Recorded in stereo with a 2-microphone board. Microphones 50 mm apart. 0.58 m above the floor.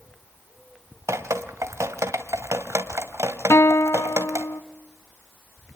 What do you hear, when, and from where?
1.1 s dripping: 80° right, 1.7 m
3.5 s a guitar: 65° left (ahead or behind), 0.9 m